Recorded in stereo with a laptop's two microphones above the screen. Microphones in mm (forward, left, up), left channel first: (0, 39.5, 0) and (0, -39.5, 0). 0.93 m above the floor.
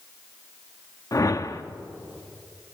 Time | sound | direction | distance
1.1 | a whoosh | 45° left (ahead or behind) | 0.9 m